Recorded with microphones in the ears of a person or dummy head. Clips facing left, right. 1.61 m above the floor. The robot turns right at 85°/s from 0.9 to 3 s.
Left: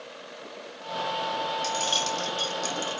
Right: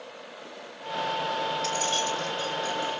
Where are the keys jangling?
5° left (ahead or behind), 2 m; by 3.0 s 55° left (ahead or behind), 2 m.